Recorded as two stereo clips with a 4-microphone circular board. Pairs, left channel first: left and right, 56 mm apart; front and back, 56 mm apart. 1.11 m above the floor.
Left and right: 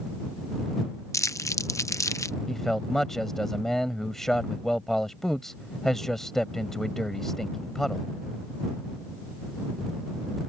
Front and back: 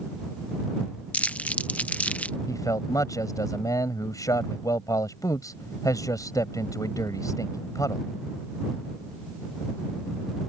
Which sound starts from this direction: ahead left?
Crumpling, at 1.1 s.